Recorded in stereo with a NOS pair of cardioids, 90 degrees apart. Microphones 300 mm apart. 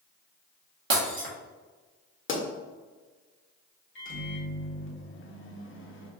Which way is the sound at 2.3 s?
40° left.